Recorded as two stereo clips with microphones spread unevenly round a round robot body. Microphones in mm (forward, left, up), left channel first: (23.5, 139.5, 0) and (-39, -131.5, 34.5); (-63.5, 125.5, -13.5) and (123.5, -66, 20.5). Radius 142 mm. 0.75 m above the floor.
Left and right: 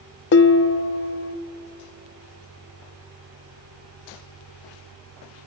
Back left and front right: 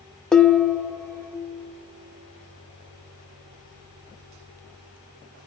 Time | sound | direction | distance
0.3 | dishes clattering | 55° left | 0.5 m